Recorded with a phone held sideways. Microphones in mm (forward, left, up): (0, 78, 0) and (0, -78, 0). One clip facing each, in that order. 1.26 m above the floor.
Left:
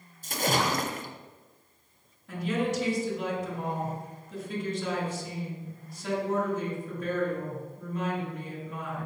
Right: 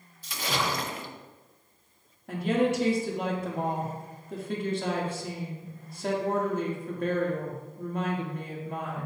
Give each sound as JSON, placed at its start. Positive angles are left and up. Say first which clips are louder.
{"t": 0.2, "sound": "a splash", "louder": "left 3 dB", "side_deg": 45, "distance_m": 0.6}
{"t": 2.3, "sound": "a woman speaking", "louder": "right 4 dB", "side_deg": -55, "distance_m": 1.7}